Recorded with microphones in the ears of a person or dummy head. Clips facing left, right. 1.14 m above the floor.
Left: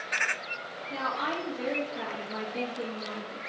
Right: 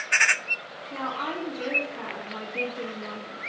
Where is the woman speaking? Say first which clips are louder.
Right 1 dB; 30° left (ahead or behind), 1.2 m.